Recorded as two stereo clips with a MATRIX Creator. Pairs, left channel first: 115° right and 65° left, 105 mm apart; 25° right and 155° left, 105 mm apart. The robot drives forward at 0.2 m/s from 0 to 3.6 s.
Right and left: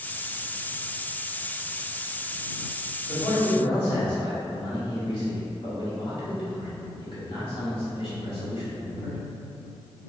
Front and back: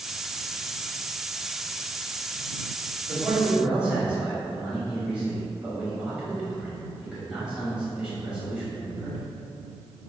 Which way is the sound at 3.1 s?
120° right.